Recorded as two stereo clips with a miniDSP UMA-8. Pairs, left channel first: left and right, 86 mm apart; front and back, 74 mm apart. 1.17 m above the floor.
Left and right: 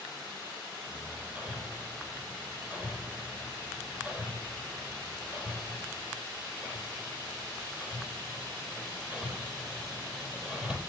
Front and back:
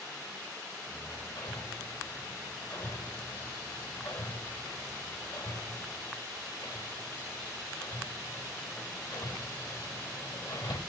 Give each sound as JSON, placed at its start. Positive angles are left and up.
{"t": 0.9, "sound": "hammering", "azimuth_deg": -15, "distance_m": 5.0}